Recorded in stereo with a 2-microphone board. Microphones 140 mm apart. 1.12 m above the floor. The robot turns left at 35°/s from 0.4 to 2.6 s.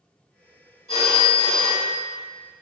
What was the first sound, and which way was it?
A phone ringing, 50° left.